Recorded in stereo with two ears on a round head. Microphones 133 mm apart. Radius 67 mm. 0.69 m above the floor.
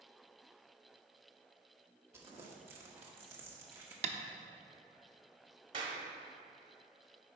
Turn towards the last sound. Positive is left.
turn(degrees=-40)  # may be behind; listen again after turning